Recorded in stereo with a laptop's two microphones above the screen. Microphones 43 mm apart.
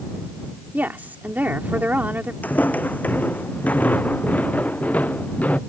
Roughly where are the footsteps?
Left.